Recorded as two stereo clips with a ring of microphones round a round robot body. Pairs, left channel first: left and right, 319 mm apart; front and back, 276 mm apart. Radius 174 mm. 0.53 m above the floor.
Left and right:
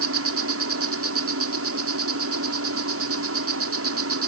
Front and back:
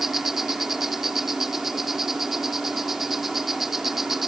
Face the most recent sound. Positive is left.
turn(degrees=-90)